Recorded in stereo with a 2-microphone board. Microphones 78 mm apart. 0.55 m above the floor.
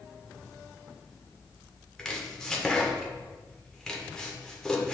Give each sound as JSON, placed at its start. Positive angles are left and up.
{"t": 2.0, "sound": "chopping", "side_deg": 10, "distance_m": 1.4}